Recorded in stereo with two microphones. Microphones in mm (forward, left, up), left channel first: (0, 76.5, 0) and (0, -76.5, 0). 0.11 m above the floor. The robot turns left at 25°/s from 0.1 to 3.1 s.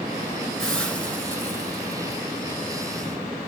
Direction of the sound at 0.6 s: 5° left (ahead or behind).